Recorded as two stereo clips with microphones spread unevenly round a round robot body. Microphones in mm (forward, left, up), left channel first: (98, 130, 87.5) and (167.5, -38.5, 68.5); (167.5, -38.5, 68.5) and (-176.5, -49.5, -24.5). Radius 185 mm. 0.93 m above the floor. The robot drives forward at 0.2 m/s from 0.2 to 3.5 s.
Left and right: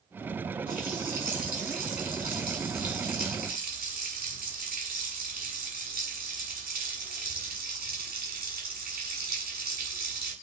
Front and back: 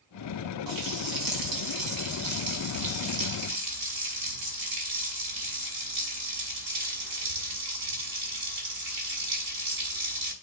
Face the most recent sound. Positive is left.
turn(degrees=-155)